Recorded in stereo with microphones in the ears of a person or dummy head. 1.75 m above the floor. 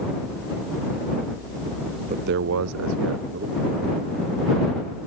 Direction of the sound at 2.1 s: 45° right (ahead or behind).